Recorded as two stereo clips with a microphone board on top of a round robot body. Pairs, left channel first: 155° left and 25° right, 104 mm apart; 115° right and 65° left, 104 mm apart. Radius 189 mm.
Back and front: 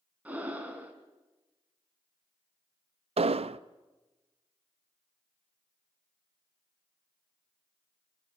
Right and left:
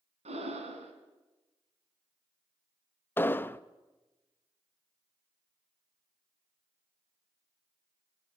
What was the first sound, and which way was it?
Breathing, 55° left.